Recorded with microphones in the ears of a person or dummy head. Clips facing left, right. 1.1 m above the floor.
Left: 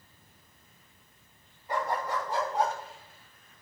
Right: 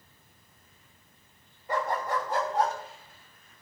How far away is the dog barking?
About 2.5 m.